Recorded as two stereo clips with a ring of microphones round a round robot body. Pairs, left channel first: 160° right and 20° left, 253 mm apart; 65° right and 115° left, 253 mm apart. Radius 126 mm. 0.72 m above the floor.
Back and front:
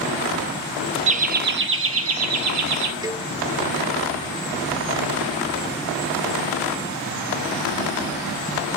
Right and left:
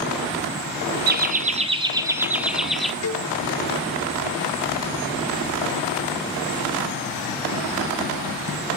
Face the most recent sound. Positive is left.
turn(degrees=-50)